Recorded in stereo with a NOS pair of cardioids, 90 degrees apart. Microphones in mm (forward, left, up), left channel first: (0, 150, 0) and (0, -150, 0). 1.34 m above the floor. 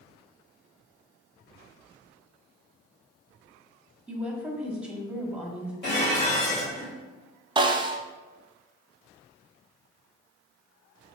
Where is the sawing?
I don't hear sawing.